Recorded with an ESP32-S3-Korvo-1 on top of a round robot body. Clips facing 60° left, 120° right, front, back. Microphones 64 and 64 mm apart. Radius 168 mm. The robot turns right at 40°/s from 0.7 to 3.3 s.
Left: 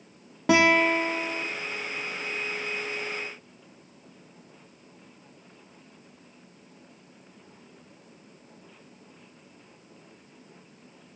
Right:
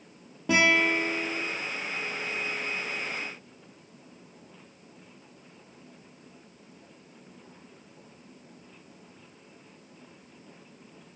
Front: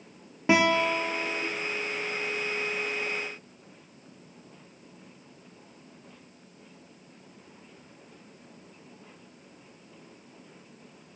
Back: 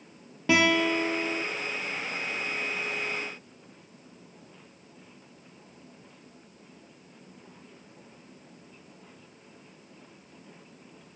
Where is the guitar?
70° left, 0.5 m; by 1.4 s 100° left, 0.5 m.